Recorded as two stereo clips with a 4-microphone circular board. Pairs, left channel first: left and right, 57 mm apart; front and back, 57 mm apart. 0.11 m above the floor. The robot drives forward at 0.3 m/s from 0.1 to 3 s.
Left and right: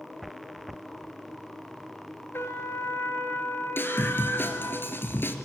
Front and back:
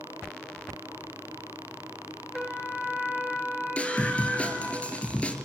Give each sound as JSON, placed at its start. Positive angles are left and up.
{"t": 2.3, "sound": "a trumpet", "azimuth_deg": 85, "distance_m": 2.0}
{"t": 3.8, "sound": "a scream", "azimuth_deg": 55, "distance_m": 2.5}